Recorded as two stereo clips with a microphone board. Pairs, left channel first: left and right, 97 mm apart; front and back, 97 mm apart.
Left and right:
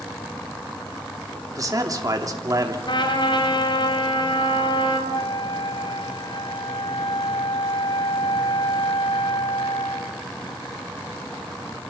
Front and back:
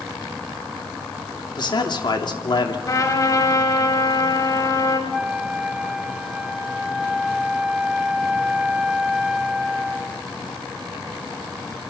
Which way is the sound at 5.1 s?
100° left.